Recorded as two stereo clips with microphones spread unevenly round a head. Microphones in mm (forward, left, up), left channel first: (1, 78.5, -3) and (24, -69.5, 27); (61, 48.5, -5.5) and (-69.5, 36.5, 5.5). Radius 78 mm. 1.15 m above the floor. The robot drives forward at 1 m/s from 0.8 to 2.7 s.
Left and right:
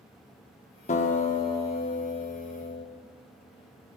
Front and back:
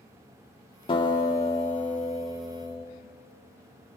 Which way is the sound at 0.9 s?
55° left.